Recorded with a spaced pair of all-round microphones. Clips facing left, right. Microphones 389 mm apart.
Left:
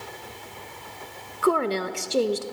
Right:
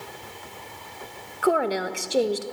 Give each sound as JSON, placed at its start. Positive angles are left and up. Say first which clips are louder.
{"t": 1.4, "sound": "a woman speaking", "louder": "even", "side_deg": 5, "distance_m": 0.9}